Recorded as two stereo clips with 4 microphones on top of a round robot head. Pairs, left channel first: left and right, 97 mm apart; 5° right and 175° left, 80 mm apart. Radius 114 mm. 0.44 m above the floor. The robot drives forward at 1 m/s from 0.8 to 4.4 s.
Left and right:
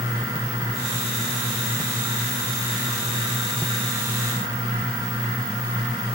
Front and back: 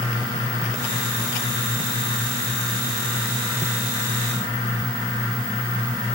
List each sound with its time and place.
Only background noise.